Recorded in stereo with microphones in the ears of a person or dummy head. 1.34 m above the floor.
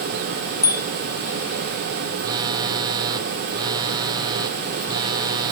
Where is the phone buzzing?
20° right (ahead or behind), 0.9 m.